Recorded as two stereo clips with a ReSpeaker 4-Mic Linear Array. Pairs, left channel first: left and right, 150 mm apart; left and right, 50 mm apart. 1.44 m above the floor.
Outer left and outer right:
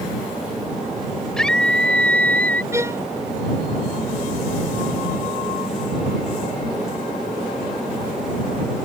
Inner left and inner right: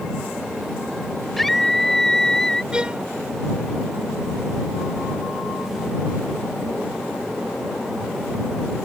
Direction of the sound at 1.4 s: 5° left (ahead or behind).